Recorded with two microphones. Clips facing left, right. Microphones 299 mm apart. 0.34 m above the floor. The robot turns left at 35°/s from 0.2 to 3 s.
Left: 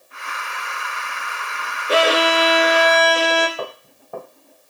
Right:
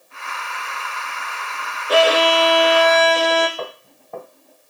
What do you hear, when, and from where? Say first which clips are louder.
1.9 s a violin: right 2 dB; 70° left, 0.6 m; by 3.5 s 30° left, 0.6 m
3.6 s footsteps: left 1 dB; 5° left (ahead or behind), 1.7 m